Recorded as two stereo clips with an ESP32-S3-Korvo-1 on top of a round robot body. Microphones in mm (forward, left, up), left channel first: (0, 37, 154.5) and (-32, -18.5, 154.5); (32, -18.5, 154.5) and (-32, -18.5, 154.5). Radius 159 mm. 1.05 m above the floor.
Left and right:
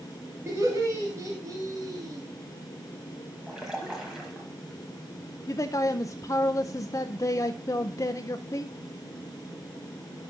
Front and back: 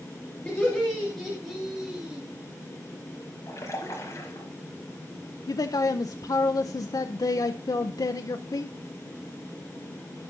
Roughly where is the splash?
Ahead right.